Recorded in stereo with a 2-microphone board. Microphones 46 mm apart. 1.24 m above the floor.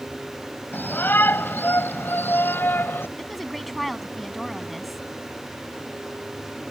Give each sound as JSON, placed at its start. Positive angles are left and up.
{"t": 0.7, "sound": "a shout", "side_deg": 45}
{"t": 3.2, "sound": "a woman speaking", "side_deg": 0}